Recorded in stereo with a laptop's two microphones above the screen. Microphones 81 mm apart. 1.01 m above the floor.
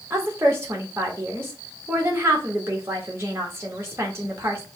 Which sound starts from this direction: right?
A woman speaking, at 0.1 s.